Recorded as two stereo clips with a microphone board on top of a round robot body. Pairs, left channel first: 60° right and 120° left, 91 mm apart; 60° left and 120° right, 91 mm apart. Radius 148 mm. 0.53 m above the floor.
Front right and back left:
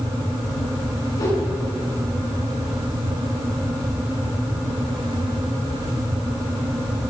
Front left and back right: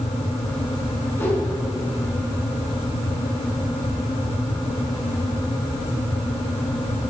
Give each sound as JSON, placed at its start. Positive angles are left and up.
{"t": 1.2, "sound": "a whoosh", "azimuth_deg": -5, "distance_m": 6.0}